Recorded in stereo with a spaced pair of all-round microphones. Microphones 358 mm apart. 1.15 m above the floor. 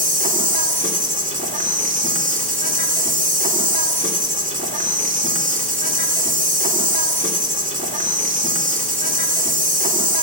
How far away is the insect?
About 2 m.